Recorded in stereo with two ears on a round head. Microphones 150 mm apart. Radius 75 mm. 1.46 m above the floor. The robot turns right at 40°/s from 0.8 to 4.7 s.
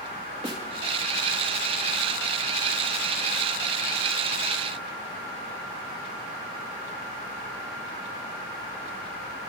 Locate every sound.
0.4 s a snare drum: 35° right (ahead or behind), 2.5 m